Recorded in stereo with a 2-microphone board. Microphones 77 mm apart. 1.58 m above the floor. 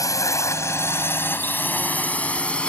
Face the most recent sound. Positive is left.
turn(degrees=15)  # may be behind; listen again after turning